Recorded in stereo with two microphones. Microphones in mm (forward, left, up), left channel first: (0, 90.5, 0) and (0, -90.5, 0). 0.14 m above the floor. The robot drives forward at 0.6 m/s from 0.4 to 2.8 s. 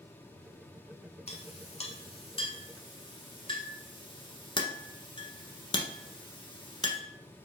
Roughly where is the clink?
Left.